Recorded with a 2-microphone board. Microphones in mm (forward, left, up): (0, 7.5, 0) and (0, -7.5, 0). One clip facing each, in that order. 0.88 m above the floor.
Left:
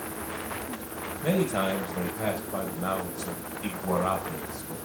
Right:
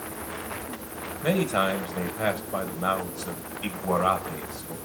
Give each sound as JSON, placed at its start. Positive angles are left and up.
{"t": 1.2, "sound": "a man speaking", "side_deg": -55, "distance_m": 5.0}